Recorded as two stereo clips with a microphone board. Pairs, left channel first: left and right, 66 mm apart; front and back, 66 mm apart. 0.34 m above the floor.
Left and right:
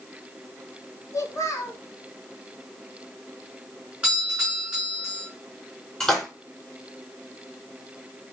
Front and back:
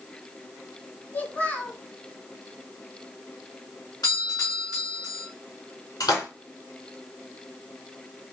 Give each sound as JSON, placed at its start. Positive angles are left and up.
{"t": 1.1, "sound": "a child speaking", "azimuth_deg": 65, "distance_m": 2.0}
{"t": 4.0, "sound": "a doorbell", "azimuth_deg": -15, "distance_m": 5.0}
{"t": 6.0, "sound": "a splash", "azimuth_deg": 5, "distance_m": 4.0}